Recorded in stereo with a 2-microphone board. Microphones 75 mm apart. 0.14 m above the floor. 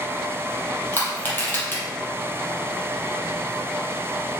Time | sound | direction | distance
0.9 | crushing | 30° left (ahead or behind) | 4 m